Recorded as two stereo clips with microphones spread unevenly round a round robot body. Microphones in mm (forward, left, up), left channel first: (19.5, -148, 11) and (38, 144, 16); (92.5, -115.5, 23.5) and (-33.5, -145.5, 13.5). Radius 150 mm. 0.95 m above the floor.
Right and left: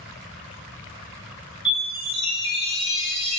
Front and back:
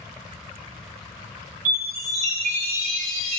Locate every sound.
1.6 s a chime: 175° left, 1.4 m